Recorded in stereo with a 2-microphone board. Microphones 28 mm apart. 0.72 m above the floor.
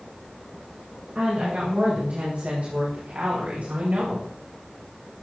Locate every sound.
1.1 s a woman speaking: 55° right (ahead or behind), 6 m; by 4.3 s 70° right (ahead or behind), 2.5 m